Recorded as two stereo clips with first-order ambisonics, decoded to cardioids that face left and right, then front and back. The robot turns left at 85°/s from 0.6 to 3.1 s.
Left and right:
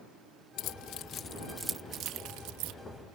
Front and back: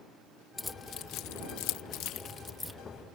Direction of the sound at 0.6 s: 85° left.